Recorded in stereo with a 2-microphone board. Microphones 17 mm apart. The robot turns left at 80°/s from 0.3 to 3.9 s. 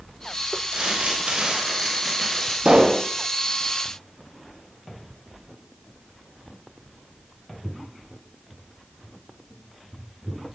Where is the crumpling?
55° right, 9.5 m; by 2.5 s 160° left, 9.5 m.